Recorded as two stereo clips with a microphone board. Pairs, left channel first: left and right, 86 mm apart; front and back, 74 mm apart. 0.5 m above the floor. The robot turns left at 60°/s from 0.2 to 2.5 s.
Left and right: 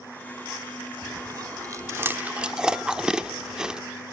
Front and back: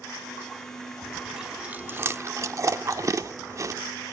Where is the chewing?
80° right, 0.8 m; by 3.8 s 165° right, 0.8 m.